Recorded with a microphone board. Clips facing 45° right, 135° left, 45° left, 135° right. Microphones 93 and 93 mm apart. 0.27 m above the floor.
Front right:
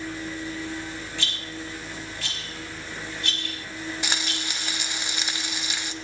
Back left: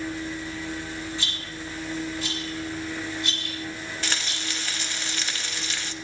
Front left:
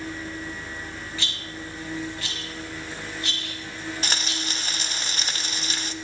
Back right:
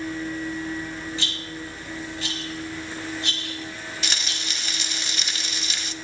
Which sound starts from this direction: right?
A rattle, at 1.2 s.